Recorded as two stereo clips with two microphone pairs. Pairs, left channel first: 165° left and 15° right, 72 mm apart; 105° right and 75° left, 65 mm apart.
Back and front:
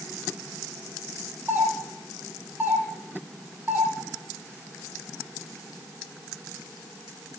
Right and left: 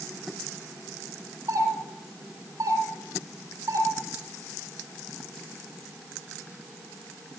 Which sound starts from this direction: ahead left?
A doorbell, at 1.5 s.